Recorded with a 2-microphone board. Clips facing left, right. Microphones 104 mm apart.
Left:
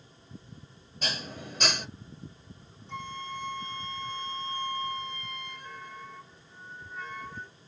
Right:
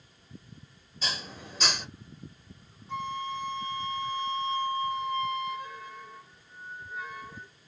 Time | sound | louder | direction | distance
1.0 | dishes clattering | left 1 dB | 50° left (ahead or behind) | 1.3 m
2.9 | a flute | right 5 dB | 5° right (ahead or behind) | 1.1 m